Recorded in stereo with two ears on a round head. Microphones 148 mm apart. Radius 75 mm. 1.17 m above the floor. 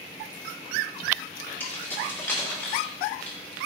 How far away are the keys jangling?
About 1.6 m.